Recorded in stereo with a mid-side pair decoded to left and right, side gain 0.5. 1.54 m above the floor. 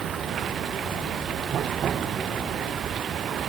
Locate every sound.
0.0 s running water: 55° right